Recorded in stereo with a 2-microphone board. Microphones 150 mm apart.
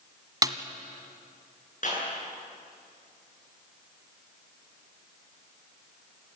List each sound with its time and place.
0.4 s a snare drum: 25° right (ahead or behind), 1.1 m
1.8 s a clap: 60° left (ahead or behind), 9.5 m